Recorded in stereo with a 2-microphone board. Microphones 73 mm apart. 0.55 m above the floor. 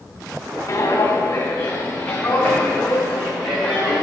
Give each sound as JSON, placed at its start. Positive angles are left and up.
{"t": 0.7, "sound": "footsteps", "side_deg": 40, "distance_m": 3.0}